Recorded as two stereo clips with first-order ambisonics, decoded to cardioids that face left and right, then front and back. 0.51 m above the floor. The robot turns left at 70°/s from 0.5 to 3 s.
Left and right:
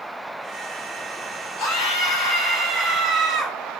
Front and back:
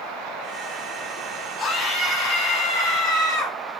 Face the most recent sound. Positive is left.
turn(degrees=-20)